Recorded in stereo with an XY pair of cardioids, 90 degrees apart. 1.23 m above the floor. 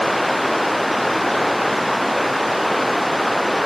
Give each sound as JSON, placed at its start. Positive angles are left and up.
{"t": 0.0, "sound": "running water", "azimuth_deg": 5}